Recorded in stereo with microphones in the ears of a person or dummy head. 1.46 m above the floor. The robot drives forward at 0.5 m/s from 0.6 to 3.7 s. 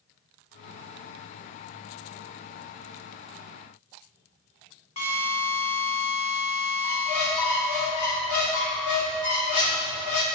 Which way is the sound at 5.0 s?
35° left (ahead or behind).